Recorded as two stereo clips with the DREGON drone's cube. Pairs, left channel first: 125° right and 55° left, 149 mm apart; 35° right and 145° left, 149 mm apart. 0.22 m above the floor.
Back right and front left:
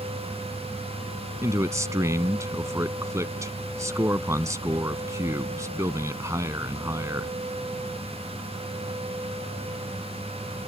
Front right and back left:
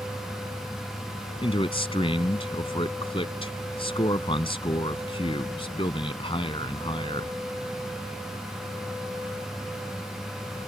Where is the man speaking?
5° right.